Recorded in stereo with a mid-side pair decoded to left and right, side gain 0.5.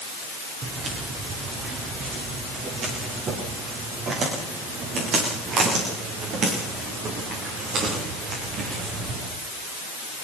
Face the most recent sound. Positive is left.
turn(degrees=-60)